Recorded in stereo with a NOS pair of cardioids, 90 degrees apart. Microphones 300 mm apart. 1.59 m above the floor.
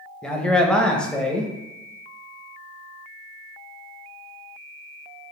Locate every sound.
0.2 s a man speaking: 5° left, 0.5 m